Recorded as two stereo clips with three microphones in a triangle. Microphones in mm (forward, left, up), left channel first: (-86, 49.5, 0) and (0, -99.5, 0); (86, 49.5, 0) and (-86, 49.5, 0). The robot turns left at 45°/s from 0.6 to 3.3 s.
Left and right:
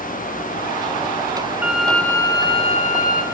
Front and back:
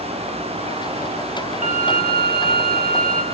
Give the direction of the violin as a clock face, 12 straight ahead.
5 o'clock.